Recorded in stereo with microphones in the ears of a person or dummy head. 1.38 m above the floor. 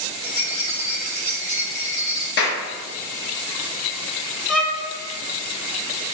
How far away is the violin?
About 0.7 m.